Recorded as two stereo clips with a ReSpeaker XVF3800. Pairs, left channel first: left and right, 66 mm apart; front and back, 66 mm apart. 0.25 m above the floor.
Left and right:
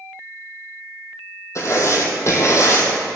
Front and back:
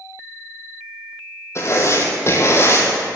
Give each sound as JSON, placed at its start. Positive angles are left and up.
{"t": 1.6, "sound": "writing", "azimuth_deg": 45, "distance_m": 2.0}